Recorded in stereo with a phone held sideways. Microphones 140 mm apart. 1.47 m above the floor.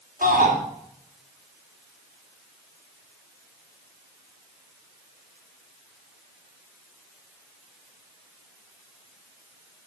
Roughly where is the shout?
Right.